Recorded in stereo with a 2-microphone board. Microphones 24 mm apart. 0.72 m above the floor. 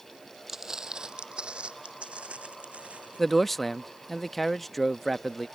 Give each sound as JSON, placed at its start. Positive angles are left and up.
{"t": 0.5, "sound": "footsteps", "side_deg": -20}
{"t": 3.2, "sound": "a man speaking", "side_deg": 10}